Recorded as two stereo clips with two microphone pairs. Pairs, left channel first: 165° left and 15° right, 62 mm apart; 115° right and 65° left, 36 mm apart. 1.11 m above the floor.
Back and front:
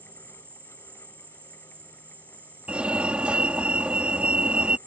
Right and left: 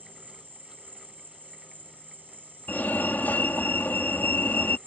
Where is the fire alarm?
85° right.